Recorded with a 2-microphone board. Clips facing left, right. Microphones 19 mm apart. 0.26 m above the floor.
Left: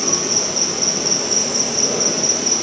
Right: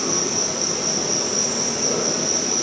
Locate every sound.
0.0 s an insect: 75° left (ahead or behind), 1.8 m